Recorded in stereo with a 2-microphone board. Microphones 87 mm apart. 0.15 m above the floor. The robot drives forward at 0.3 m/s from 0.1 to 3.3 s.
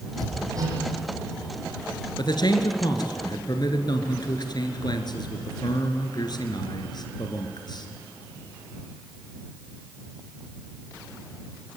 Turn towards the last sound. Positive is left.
turn(degrees=55)  # may be behind; listen again after turning